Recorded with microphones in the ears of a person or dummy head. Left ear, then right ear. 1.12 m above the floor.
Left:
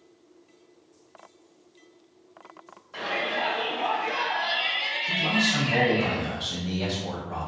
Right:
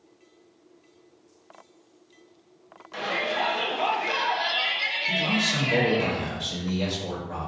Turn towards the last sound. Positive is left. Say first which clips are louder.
# left 2 dB
turn(degrees=-45)  # may be behind; listen again after turning